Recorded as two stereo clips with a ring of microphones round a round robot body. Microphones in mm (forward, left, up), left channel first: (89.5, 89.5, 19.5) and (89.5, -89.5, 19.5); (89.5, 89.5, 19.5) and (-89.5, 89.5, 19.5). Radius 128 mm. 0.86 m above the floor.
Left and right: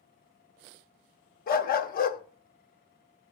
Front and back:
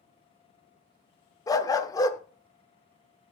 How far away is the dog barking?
About 0.7 m.